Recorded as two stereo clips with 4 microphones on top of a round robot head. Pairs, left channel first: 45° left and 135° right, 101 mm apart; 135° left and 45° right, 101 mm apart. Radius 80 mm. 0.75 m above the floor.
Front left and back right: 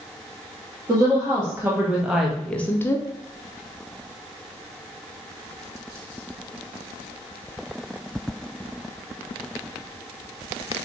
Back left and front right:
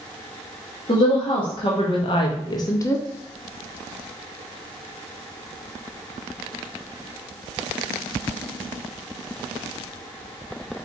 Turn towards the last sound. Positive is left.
turn(degrees=80)